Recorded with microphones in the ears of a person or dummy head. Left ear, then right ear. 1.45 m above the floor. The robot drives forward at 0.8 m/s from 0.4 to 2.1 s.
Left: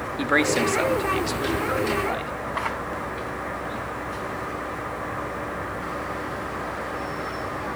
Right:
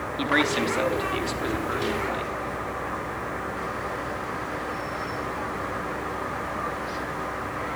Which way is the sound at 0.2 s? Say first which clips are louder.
Left 2 dB; 30° left (ahead or behind).